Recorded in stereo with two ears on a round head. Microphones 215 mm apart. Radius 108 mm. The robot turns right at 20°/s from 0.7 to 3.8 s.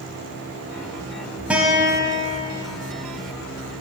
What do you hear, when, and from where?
1.5 s a guitar: 5° right (ahead or behind), 0.8 m; by 2.5 s 10° left (ahead or behind), 0.8 m